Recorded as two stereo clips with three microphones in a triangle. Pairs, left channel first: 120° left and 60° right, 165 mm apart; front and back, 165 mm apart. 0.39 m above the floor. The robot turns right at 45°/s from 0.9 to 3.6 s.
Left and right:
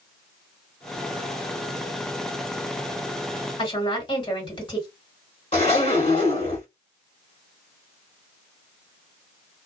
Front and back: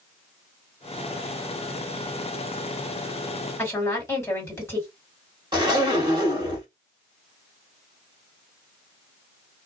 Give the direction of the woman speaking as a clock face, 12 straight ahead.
10 o'clock.